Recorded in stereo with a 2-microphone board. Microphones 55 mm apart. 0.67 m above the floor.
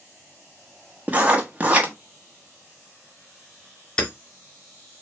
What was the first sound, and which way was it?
Writing, 25° right (ahead or behind).